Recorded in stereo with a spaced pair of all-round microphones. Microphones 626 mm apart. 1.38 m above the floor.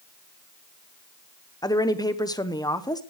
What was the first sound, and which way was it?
A woman speaking, 5° left (ahead or behind).